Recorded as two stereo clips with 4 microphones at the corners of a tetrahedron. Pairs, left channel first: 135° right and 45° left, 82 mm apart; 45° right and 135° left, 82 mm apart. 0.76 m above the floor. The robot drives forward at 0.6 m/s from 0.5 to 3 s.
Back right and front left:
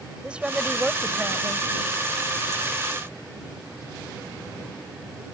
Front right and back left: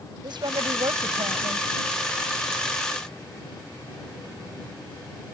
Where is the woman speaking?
120° left; by 1.7 s 130° left.